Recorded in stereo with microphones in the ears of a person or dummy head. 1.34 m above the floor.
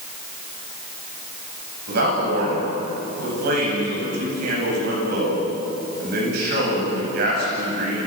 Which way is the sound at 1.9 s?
65° right (ahead or behind).